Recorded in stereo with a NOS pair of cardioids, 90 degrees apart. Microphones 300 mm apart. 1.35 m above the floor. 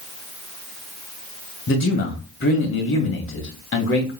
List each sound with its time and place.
1.7 s a man speaking: 45° left, 1.6 m